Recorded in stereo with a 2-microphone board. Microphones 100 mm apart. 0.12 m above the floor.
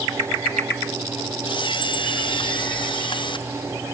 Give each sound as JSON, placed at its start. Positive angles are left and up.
{"t": 1.4, "sound": "a camera shutter", "side_deg": 55}